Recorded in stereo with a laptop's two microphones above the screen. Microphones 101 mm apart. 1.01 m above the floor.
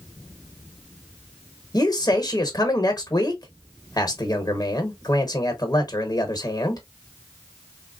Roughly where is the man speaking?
Left.